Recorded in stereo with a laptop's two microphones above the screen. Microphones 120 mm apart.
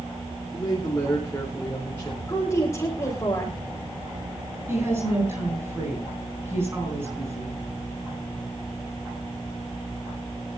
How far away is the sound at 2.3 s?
About 3.5 m.